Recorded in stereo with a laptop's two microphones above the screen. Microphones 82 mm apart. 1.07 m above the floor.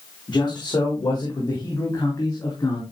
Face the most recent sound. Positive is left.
turn(degrees=45)  # may be behind; listen again after turning